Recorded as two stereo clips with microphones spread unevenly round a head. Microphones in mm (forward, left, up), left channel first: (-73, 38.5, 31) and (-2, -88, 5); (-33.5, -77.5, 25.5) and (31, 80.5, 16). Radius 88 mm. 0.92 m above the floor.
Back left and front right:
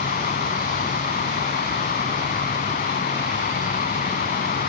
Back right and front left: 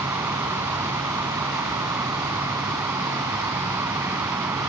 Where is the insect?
145° left.